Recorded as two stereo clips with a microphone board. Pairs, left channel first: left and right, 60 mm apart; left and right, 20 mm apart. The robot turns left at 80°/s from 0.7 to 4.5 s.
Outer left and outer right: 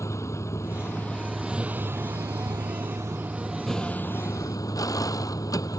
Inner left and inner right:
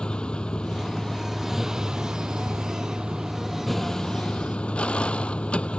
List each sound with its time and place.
0.0 s a vehicle: 55° left; by 5.8 s 110° left